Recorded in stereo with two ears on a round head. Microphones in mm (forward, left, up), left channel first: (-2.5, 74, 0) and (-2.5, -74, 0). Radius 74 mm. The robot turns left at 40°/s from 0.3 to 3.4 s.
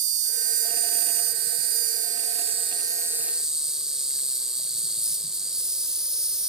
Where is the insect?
50° right, 0.7 m; by 6.5 s 175° right, 0.7 m.